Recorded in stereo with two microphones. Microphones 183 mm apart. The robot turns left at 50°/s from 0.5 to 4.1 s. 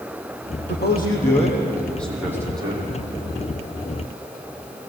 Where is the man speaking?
70° left, 7.5 m; by 2.8 s 35° right, 7.5 m.